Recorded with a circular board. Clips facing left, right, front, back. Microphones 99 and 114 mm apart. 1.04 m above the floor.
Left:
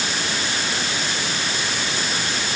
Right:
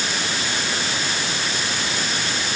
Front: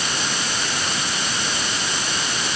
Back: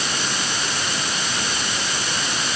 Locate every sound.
Only background noise.